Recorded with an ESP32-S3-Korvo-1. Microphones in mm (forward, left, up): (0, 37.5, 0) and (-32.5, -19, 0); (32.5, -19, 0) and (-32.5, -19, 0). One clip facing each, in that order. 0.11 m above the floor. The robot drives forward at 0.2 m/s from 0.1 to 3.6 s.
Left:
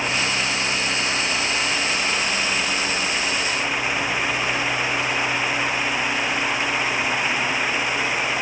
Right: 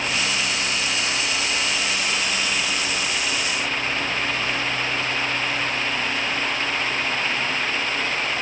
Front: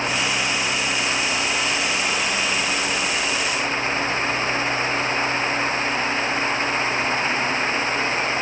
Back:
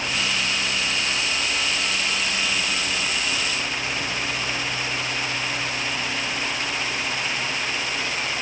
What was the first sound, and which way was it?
Only background noise.